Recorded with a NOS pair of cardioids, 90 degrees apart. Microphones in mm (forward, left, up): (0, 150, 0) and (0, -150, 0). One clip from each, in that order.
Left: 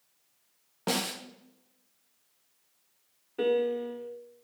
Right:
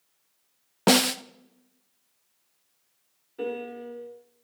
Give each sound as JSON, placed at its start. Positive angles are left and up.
{"t": 0.9, "sound": "a snare drum", "azimuth_deg": -50, "distance_m": 0.5}
{"t": 3.4, "sound": "a piano", "azimuth_deg": 40, "distance_m": 1.9}